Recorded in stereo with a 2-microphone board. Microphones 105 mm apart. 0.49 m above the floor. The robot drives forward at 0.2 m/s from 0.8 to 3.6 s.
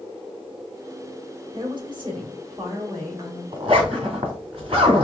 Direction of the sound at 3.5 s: 60° right (ahead or behind).